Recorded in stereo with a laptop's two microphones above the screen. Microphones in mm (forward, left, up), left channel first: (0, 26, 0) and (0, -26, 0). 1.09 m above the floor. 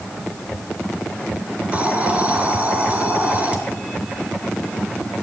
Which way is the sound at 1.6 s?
30° right (ahead or behind).